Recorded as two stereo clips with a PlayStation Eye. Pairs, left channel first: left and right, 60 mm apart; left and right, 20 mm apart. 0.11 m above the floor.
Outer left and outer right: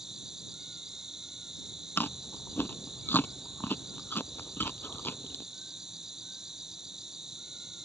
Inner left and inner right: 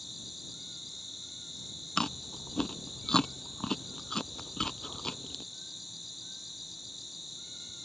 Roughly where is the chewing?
Left.